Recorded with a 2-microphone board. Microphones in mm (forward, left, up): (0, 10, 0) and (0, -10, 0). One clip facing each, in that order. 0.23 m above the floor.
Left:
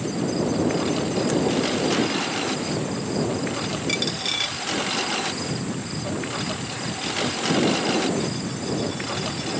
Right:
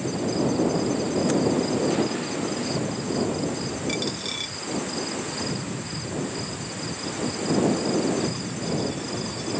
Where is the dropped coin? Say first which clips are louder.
Left 5 dB; 20° left (ahead or behind).